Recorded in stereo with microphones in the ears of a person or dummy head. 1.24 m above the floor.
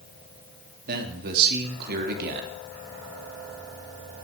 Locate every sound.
0.9 s a man speaking: 55° right (ahead or behind), 2.5 m